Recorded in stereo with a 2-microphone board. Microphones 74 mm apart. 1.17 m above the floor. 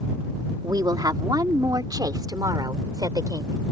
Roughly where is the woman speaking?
Right.